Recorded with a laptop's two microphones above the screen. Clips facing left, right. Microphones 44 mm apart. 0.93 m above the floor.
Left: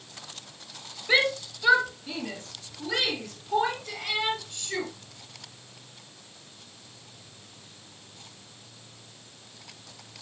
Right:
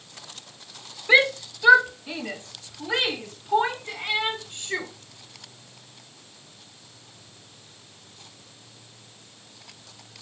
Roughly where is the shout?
Centre.